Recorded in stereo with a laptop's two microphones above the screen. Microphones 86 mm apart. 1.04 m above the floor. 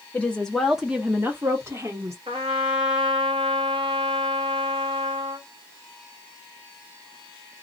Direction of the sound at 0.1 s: 20° left (ahead or behind).